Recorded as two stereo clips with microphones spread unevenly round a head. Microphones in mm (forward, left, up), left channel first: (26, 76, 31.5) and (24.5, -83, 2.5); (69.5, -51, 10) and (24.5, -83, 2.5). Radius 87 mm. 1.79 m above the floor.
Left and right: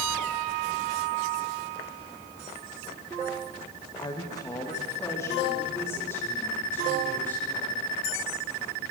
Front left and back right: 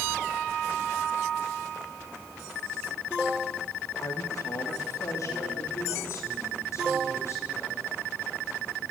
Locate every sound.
4.0 s a woman speaking: 30° left, 1.7 m; by 7.9 s 15° left, 7.5 m